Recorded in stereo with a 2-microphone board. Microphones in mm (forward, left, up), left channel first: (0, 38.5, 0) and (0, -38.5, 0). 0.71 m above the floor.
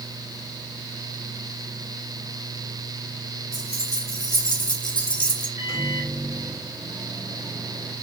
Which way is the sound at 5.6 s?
40° right (ahead or behind).